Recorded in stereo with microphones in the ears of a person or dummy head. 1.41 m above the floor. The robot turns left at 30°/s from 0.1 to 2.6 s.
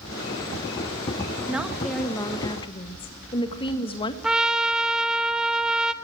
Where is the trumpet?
5° right (ahead or behind), 1.3 m.